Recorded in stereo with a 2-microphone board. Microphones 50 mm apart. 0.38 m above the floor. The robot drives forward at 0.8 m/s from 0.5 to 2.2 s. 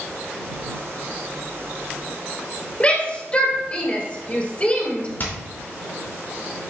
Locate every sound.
2.8 s a shout: 25° left (ahead or behind), 2 m
5.2 s hammering: 45° left (ahead or behind), 3.5 m